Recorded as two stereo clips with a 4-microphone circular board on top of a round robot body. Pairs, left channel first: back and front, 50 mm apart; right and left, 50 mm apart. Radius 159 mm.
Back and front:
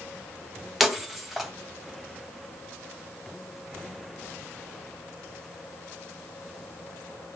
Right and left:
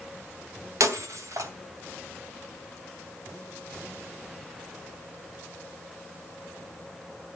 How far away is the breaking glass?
About 2.5 m.